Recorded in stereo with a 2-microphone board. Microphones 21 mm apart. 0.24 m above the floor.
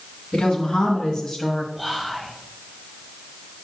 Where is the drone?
I don't hear a drone.